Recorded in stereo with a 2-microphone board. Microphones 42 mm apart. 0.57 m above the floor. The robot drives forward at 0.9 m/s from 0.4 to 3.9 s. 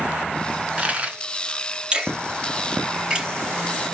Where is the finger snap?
20° right (ahead or behind), 6 m; by 3.9 s 15° right (ahead or behind), 8 m.